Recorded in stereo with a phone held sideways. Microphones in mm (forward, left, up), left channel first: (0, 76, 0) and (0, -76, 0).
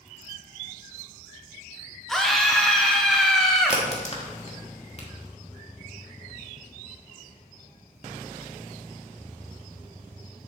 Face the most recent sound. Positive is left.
turn(degrees=45)  # may be behind; listen again after turning